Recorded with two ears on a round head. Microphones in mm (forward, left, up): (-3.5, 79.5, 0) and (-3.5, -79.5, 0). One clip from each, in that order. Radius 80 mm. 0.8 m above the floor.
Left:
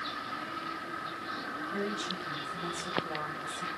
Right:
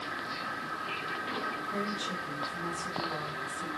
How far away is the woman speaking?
About 3.5 m.